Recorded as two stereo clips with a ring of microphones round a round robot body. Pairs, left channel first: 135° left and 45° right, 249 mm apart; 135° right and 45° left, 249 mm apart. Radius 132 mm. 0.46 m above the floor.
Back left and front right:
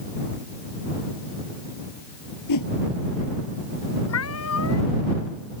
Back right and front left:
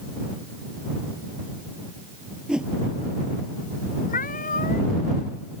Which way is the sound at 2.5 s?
130° left.